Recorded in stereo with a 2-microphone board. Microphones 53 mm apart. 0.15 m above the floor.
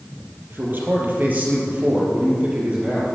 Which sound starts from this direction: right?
A man speaking, at 0.5 s.